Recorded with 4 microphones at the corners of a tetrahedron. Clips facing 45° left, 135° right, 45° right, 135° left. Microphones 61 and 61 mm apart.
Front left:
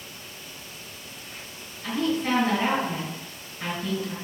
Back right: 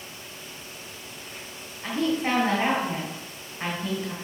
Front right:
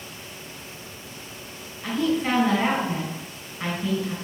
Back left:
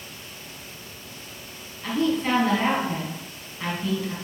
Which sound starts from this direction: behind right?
A woman speaking, at 1.8 s.